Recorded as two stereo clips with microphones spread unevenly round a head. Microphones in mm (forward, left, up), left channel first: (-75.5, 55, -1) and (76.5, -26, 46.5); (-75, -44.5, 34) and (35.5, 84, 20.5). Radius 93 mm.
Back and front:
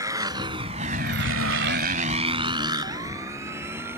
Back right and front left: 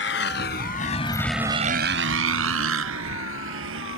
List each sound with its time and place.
0.0 s a motorcycle: 100° right; by 4.0 s 50° left